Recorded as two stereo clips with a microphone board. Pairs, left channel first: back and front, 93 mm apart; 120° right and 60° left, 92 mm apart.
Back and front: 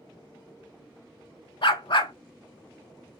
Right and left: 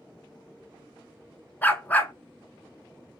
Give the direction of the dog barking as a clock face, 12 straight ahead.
6 o'clock.